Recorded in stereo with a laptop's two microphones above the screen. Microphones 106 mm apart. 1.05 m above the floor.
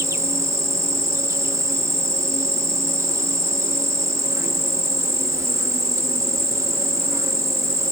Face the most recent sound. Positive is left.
turn(degrees=-25)  # may be behind; listen again after turning